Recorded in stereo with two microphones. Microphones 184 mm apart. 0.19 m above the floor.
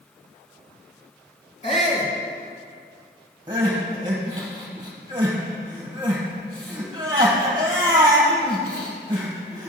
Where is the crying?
25° right (ahead or behind), 2 m.